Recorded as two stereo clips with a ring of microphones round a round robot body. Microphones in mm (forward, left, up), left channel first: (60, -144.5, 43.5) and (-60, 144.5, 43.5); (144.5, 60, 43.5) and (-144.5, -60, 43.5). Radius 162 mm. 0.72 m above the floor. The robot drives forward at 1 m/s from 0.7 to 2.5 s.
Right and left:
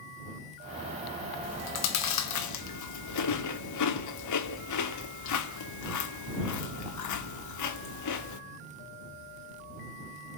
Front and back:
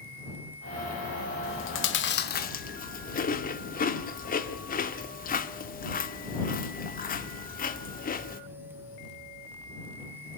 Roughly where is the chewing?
Ahead right.